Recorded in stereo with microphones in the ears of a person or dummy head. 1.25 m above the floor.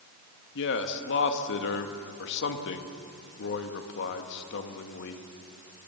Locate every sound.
0.6 s a man speaking: 65° left (ahead or behind), 1.7 m